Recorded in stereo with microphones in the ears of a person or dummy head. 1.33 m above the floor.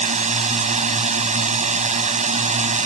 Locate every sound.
0.0 s a drone: 35° right (ahead or behind)